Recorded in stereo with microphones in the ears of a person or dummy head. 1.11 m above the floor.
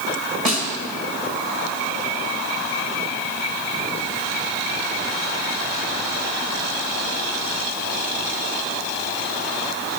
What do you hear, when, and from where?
0.5 s a snare drum: 45° right (ahead or behind), 1.8 m